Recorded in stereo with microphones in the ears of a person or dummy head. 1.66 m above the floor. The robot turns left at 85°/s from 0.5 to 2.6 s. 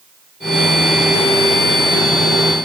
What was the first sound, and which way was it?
Only background noise.